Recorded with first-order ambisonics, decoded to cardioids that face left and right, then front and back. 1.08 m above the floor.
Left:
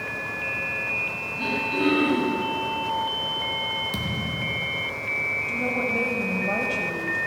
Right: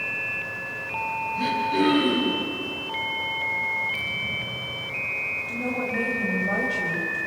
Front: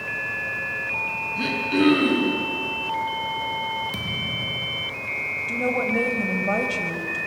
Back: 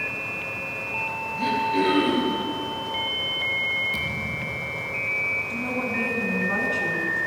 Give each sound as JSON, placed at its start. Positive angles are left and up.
{"t": 1.4, "sound": "throat clearing", "azimuth_deg": -5, "distance_m": 10.0}
{"t": 3.9, "sound": "a thud", "azimuth_deg": 70, "distance_m": 3.0}
{"t": 5.5, "sound": "a woman speaking", "azimuth_deg": 10, "distance_m": 5.5}